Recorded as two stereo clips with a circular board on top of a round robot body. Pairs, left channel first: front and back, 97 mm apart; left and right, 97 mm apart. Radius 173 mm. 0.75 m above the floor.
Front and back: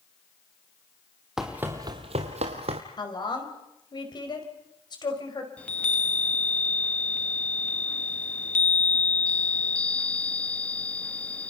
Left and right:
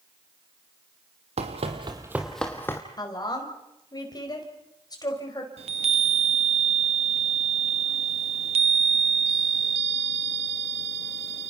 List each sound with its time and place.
1.4 s running footsteps: 95° right, 1.4 m; by 2.8 s 155° left, 1.6 m
3.0 s a woman speaking: 40° left, 5 m
5.6 s a chime: 80° right, 0.7 m